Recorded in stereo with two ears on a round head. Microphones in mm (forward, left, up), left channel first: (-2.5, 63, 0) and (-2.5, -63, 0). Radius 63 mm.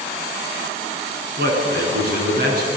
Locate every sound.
1.4 s a man speaking: 75° right (ahead or behind), 7 m